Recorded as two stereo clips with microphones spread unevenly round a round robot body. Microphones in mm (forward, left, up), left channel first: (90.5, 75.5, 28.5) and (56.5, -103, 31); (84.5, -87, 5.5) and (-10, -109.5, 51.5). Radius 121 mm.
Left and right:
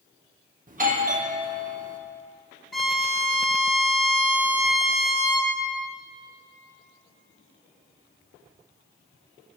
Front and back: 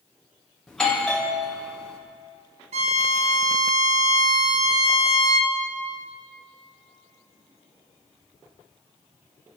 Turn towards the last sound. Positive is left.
turn(degrees=165)